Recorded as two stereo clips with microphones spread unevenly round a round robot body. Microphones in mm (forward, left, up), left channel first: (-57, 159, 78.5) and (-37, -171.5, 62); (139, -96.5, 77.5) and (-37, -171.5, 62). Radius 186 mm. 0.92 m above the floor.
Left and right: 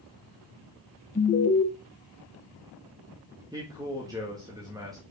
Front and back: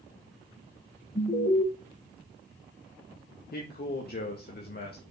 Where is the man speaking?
10° right, 1.9 m.